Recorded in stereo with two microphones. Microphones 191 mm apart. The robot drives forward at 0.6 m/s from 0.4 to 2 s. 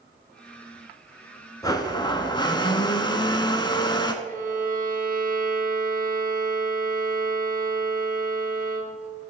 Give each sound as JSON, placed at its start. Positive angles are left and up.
{"t": 1.6, "sound": "a blender", "side_deg": 20, "distance_m": 0.8}
{"t": 4.2, "sound": "a violin", "side_deg": -45, "distance_m": 0.9}